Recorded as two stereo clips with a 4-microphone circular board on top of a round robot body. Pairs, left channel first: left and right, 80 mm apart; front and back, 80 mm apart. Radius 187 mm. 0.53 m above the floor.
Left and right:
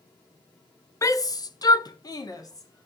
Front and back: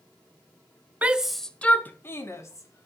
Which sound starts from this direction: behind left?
A shout, at 1.0 s.